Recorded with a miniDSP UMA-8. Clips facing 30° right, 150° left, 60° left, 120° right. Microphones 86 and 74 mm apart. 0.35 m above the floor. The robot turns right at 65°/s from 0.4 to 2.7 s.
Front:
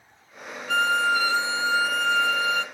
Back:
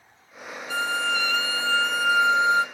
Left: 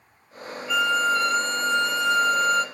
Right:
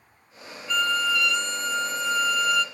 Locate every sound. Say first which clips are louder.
0.7 s a violin: front 4 dB, left 3 dB; 25° right, 1.6 m; by 2.6 s 105° left, 1.6 m